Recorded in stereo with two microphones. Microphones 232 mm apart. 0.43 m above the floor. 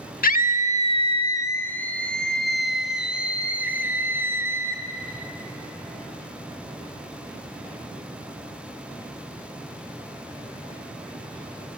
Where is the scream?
40° left (ahead or behind), 1.0 m; by 4.8 s 10° right (ahead or behind), 3 m.